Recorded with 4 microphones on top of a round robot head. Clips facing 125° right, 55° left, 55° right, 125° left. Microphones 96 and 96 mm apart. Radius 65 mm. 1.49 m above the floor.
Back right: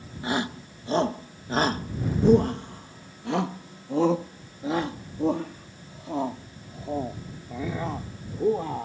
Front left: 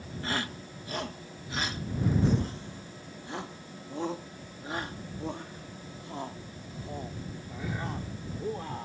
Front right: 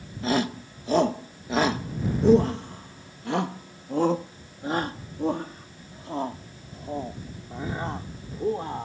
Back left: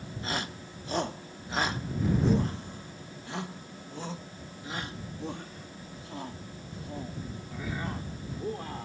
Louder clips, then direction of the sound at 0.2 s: Back right 7 dB, front right 11 dB; 50° right.